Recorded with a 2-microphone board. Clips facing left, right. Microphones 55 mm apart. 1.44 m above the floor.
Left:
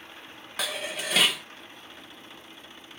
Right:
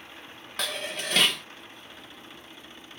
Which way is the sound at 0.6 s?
5° left (ahead or behind).